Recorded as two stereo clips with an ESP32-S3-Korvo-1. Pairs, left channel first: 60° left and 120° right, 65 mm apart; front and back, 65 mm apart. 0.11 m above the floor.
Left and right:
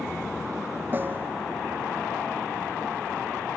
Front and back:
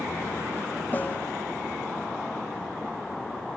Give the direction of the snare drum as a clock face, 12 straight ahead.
2 o'clock.